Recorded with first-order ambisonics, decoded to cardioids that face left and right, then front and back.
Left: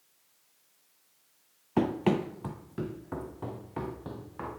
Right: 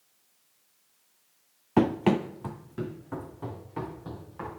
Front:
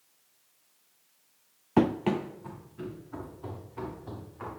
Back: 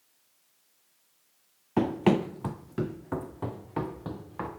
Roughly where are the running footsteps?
Ahead right.